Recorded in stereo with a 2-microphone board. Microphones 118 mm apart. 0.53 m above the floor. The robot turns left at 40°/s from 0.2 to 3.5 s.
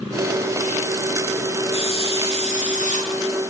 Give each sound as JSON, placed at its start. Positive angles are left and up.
{"t": 1.7, "sound": "a hiss", "azimuth_deg": 135, "distance_m": 5.5}